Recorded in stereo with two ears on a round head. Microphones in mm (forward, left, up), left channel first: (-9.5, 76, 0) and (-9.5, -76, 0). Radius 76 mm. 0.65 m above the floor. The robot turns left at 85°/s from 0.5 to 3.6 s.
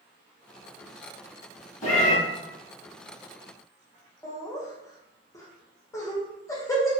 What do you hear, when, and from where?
1.8 s a cat meowing: 35° left (ahead or behind), 1.6 m; by 2.2 s 5° left (ahead or behind), 1.6 m
4.2 s laughter: 20° left (ahead or behind), 0.9 m